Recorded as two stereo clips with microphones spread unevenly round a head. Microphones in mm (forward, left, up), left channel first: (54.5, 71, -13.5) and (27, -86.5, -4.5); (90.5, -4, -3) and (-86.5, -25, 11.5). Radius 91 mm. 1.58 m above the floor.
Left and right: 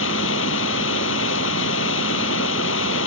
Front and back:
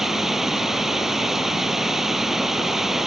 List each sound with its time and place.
0.0 s running water: 100° left